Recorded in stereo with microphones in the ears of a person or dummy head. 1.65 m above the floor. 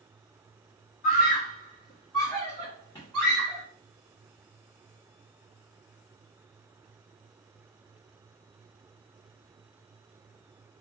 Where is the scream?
40° left (ahead or behind), 0.7 m; by 3.6 s 10° left (ahead or behind), 1.5 m.